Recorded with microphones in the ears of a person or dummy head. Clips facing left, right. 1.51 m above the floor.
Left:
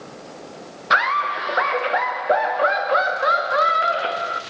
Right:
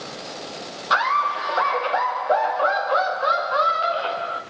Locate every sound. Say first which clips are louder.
0.9 s laughter: even; 30° left (ahead or behind), 1.3 m